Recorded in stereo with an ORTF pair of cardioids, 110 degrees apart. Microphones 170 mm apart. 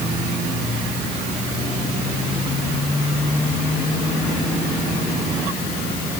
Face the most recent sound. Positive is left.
No sound to turn to.